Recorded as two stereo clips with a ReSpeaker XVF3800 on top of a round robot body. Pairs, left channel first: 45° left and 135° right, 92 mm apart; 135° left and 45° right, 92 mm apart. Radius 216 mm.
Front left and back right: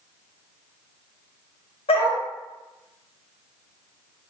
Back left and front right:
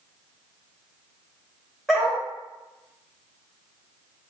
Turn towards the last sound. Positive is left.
turn(degrees=45)